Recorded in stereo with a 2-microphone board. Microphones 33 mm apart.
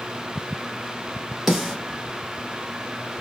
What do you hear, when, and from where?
1.5 s a snare drum: 5° right (ahead or behind), 1.5 m